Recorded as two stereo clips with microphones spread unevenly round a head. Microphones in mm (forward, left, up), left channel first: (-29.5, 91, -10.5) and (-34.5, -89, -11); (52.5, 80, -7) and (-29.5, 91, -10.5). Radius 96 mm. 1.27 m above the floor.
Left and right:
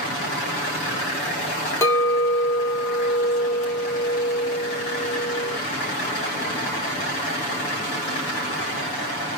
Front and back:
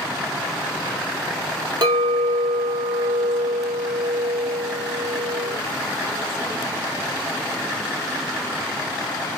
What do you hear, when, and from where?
1.8 s a clink: 160° left, 1.2 m